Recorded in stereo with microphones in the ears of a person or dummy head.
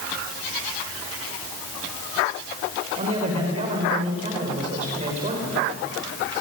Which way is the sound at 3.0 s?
35° right (ahead or behind).